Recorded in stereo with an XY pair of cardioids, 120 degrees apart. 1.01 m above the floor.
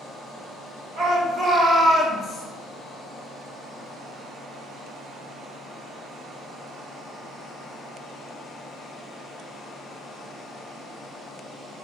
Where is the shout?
55° right, 1.5 m; by 2.5 s 60° left, 0.8 m.